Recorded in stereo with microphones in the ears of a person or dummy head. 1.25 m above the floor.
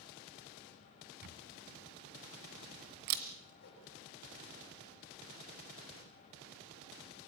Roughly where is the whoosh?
Left.